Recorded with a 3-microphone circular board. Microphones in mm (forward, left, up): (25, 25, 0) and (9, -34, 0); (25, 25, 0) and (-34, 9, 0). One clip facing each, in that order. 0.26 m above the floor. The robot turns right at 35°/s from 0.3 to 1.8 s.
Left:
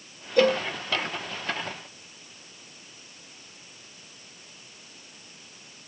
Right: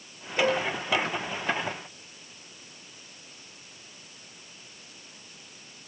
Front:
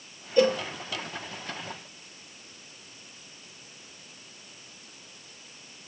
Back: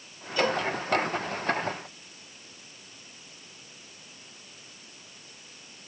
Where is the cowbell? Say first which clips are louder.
Left 4 dB, front 4 dB; 65° left, 1.3 m; by 0.6 s 75° left, 1.3 m.